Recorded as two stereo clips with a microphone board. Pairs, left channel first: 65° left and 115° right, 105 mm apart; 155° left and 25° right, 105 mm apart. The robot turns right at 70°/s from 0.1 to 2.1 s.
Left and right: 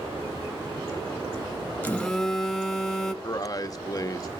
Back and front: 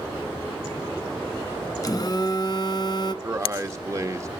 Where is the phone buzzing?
130° left, 1.3 m; by 3.1 s 150° left, 1.3 m.